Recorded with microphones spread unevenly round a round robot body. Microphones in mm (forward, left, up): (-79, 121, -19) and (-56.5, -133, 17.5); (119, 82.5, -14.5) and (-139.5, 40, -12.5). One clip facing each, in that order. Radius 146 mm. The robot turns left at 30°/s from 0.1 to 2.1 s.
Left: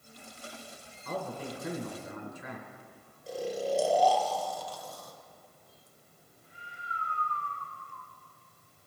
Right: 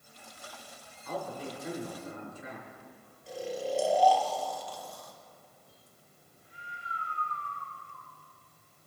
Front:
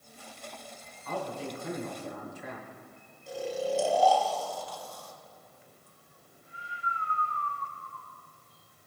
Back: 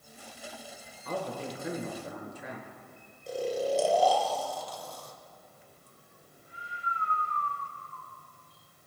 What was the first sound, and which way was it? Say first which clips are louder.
A man speaking: left 1 dB, back 1 dB; 140° left.